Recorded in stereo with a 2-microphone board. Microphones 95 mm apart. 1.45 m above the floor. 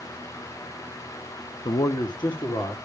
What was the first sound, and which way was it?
A man speaking, 60° left (ahead or behind).